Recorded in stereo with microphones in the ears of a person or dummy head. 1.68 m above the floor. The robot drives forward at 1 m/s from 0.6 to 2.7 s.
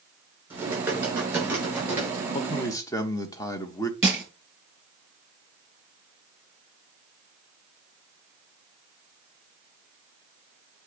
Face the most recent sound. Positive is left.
turn(degrees=-10)  # may be behind; listen again after turning